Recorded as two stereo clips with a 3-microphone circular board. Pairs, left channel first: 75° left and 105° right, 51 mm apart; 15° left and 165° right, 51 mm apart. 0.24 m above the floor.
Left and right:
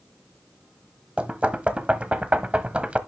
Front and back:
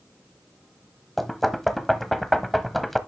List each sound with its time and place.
1.2 s knocking: 70° right, 1.0 m